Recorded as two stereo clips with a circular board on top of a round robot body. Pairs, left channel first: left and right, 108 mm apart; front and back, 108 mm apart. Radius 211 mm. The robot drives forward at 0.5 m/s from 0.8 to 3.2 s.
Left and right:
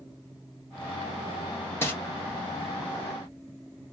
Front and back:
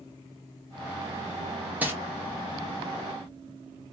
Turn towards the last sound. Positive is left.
turn(degrees=155)